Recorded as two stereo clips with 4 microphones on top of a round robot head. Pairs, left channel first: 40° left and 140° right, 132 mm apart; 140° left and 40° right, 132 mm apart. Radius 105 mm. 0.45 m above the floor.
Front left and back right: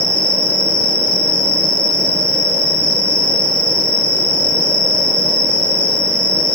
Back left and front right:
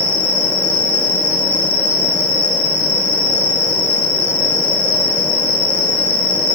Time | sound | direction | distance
0.0 | an insect | 105° right | 9 m